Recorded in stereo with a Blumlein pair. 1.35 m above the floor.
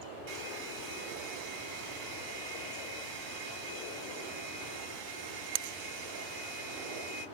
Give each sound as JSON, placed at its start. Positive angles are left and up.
{"t": 0.3, "sound": "a hair dryer", "azimuth_deg": -40, "distance_m": 2.5}